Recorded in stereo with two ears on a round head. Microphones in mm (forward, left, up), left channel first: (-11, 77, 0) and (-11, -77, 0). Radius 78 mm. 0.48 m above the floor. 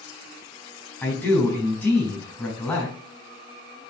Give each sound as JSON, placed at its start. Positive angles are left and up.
{"t": 1.0, "sound": "a man speaking", "side_deg": 5, "distance_m": 4.0}